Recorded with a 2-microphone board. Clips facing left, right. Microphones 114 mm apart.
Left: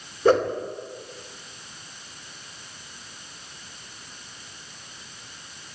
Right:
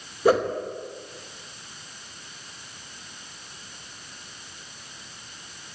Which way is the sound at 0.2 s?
10° right (ahead or behind).